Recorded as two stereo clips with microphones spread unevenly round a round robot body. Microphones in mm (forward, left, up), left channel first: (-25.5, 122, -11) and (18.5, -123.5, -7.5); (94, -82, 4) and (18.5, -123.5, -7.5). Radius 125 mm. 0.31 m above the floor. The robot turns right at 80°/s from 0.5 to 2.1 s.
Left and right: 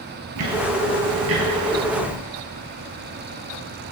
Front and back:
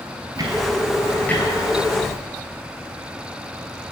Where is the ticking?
105° right, 1.7 m; by 2.2 s 20° left, 1.7 m.